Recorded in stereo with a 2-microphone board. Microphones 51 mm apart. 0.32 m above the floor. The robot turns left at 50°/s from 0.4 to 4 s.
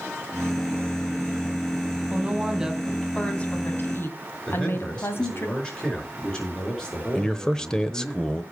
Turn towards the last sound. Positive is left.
turn(degrees=15)  # may be behind; listen again after turning